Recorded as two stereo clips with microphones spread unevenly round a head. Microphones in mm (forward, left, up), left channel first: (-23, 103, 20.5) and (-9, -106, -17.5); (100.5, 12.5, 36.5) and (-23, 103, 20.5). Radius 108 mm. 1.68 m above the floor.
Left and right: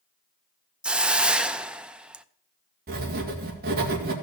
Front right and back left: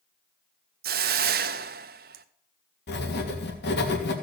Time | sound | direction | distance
0.8 | a hiss | straight behind | 0.5 m
2.9 | writing | 35° right | 2.5 m